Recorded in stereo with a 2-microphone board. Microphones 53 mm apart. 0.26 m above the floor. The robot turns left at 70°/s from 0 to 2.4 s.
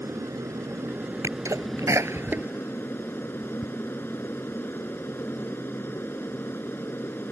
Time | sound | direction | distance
0.0 | an aircraft | 60° right | ?
1.2 | a sneeze | 60° right (ahead or behind) | ?